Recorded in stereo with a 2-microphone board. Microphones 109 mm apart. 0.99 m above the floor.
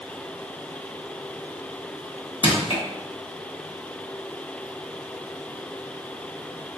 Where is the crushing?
55° left (ahead or behind), 1.1 m.